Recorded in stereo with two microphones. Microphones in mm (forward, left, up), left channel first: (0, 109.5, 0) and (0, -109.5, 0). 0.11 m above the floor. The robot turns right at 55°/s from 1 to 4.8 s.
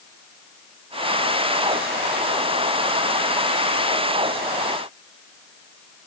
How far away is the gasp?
No gasp in this recording.